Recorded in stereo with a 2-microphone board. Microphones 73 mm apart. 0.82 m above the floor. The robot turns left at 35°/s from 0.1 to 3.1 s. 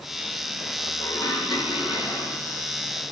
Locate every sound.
1.0 s dishes clattering: 105° left, 4.5 m; by 2.5 s 50° left, 4.5 m